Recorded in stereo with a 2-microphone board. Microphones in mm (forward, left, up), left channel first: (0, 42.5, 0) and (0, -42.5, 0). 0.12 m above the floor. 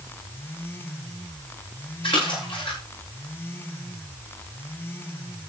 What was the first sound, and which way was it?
A splash, 85° left.